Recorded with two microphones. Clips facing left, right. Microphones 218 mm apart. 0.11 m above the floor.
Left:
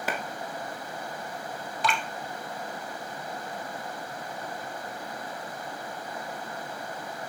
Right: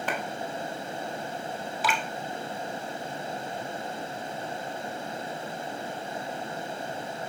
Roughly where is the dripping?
Centre.